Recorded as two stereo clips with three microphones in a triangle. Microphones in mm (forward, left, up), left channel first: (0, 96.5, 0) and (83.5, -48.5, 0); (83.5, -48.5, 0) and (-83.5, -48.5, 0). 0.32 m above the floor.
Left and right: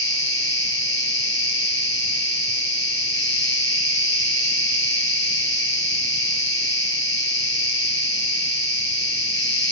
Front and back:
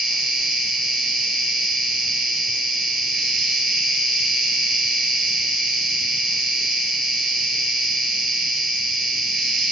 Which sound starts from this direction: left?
An insect, at 0.0 s.